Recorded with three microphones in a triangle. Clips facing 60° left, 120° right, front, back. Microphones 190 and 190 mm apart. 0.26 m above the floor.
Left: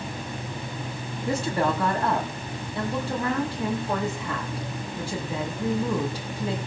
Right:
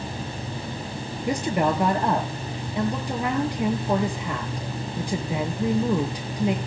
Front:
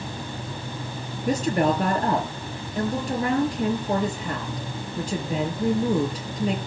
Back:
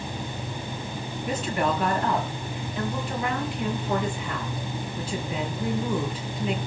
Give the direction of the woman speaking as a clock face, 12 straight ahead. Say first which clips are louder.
Right 2 dB, front 5 dB; 2 o'clock.